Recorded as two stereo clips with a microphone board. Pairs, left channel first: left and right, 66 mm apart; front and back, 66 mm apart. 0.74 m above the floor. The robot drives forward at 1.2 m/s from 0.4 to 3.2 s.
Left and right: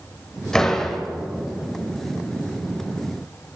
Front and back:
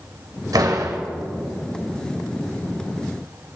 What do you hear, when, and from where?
0.5 s a door slam: 170° left, 3 m